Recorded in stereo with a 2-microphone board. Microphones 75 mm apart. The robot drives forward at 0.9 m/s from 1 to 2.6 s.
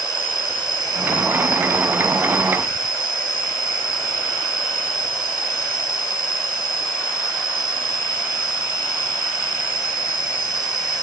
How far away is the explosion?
No explosion in this recording.